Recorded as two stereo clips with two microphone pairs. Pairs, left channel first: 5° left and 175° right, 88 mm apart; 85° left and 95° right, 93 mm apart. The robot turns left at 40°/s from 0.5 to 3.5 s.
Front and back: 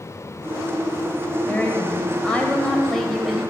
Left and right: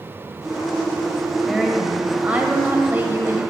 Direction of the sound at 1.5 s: 10° right.